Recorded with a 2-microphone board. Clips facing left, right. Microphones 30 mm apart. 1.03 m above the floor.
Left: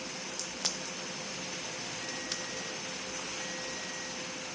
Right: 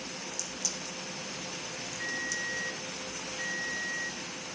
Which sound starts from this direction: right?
A ringtone, at 2.0 s.